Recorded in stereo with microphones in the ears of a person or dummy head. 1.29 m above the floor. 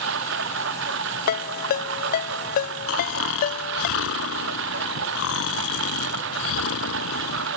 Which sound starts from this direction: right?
A lawn mower, at 0.0 s.